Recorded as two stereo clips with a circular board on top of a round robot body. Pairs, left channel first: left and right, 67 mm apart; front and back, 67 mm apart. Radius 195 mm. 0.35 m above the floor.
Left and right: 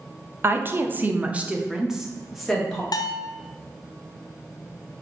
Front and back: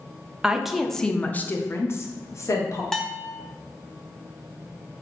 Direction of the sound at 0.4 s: 110° right.